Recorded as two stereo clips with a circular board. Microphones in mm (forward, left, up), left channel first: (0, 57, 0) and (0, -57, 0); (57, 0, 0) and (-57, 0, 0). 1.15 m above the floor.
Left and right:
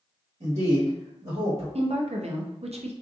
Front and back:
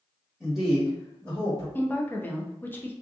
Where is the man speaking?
90° right, 1.3 m; by 1.6 s 55° right, 1.6 m.